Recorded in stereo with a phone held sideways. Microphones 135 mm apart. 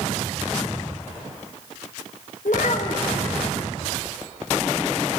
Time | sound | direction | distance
2.5 | a child speaking | 70° left (ahead or behind) | 1.0 m